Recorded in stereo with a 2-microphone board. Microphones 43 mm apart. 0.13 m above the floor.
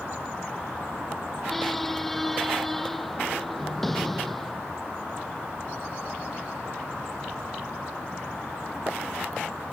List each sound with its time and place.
1.5 s a squeak: 5° left (ahead or behind)